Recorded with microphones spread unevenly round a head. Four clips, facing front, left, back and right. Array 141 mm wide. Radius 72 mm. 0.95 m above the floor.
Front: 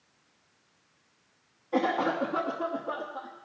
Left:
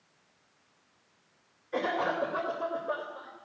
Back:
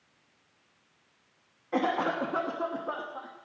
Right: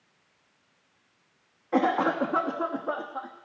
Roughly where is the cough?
Right.